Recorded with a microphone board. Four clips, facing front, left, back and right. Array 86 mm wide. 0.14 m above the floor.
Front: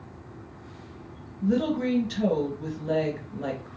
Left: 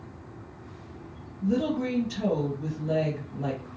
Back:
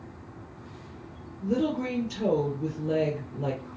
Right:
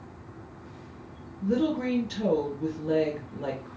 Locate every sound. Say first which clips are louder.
1.4 s a woman speaking: even, front 2 dB; 20° right, 2 m